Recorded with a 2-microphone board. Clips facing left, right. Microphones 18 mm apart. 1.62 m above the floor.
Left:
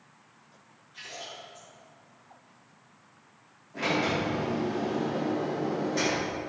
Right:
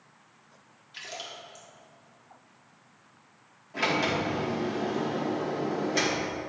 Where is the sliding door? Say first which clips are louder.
Right 1 dB; 35° right (ahead or behind), 2.0 m.